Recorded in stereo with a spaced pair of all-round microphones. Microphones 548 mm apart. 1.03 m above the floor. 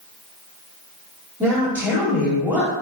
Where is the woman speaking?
5° right (ahead or behind), 1.9 m.